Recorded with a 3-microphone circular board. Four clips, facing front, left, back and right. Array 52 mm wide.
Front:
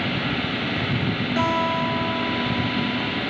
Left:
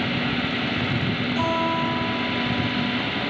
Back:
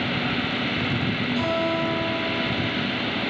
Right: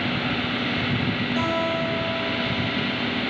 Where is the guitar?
15° right, 10 m.